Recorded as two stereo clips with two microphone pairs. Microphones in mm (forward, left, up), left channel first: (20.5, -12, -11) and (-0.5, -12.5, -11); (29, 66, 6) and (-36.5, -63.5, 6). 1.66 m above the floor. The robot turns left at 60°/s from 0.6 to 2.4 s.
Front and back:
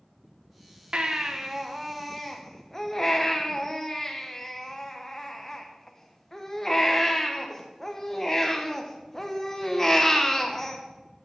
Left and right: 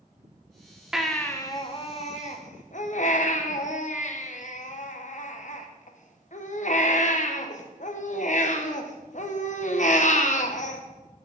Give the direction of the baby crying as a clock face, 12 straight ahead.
7 o'clock.